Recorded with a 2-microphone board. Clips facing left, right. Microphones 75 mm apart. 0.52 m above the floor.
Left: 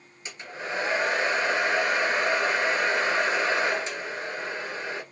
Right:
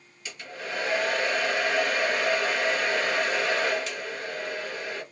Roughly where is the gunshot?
I don't hear a gunshot.